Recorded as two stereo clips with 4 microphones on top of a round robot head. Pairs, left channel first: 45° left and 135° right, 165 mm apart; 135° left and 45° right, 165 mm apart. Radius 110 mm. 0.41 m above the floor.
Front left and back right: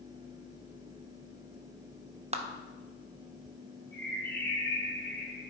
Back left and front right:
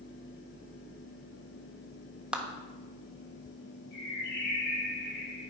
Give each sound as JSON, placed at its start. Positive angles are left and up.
{"t": 2.3, "sound": "a clap", "azimuth_deg": -125, "distance_m": 1.3}
{"t": 3.9, "sound": "a bird", "azimuth_deg": 120, "distance_m": 3.5}